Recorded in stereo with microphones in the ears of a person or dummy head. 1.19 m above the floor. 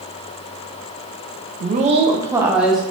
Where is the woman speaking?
50° right (ahead or behind), 0.6 m; by 2.8 s 5° right (ahead or behind), 1.1 m.